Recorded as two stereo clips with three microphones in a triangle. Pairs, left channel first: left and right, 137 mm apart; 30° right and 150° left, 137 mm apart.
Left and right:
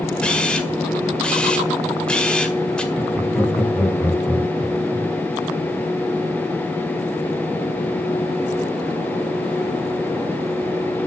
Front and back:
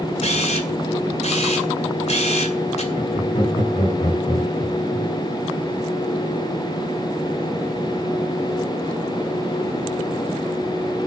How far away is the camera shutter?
About 2 m.